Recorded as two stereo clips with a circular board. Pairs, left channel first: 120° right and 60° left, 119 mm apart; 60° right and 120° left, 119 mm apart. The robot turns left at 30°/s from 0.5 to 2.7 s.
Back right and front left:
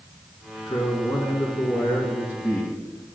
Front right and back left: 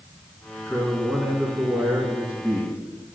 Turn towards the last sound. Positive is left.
turn(degrees=175)